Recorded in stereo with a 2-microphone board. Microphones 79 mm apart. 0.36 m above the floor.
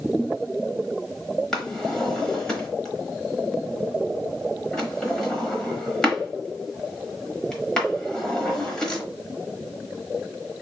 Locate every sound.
1.5 s a drawer: 10° left (ahead or behind), 0.9 m